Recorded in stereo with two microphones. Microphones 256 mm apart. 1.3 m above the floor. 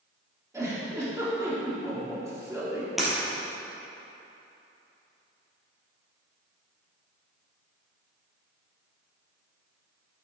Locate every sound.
0.5 s a giggle: 10° right (ahead or behind), 2 m
3.0 s breaking glass: centre (ahead or behind), 3 m